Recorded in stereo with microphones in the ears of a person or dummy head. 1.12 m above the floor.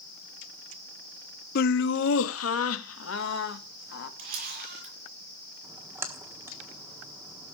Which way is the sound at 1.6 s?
55° left (ahead or behind).